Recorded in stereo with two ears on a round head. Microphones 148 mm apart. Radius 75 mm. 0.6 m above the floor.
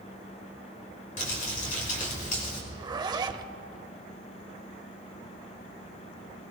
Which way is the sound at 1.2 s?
50° left (ahead or behind).